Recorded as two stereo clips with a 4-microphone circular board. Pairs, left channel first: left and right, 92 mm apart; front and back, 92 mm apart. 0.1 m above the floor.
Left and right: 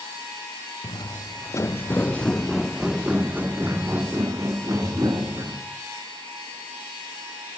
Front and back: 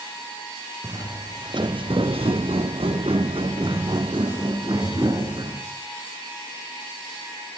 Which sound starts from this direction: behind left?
Footsteps, at 0.8 s.